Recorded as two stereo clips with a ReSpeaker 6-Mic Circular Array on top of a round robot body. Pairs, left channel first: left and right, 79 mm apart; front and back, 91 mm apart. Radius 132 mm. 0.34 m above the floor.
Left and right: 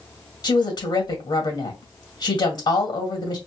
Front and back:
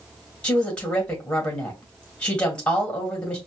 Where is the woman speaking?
75° left, 2 m.